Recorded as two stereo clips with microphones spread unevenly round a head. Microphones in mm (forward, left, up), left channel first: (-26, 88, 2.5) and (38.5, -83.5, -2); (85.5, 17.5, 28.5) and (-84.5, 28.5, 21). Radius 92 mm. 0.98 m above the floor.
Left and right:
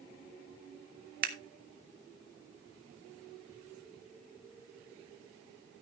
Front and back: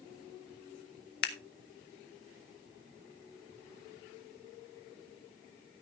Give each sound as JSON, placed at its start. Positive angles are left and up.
{"t": 1.2, "sound": "scissors", "azimuth_deg": -30, "distance_m": 1.5}